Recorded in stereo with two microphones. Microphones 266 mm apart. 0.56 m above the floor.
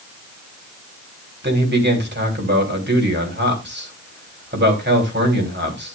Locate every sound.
1.4 s a man speaking: 40° right (ahead or behind), 3.5 m